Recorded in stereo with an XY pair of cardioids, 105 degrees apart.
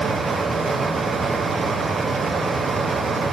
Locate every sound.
0.0 s a fan: 40° right, 0.9 m